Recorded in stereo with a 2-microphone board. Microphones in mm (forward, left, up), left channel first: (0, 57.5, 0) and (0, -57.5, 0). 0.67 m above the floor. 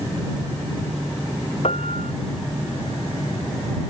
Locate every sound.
1.6 s a piano: 65° left (ahead or behind)